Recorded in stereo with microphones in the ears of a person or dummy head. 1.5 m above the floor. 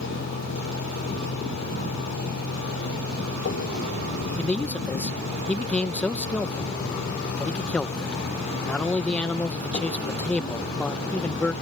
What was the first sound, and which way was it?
A vehicle, 65° left (ahead or behind).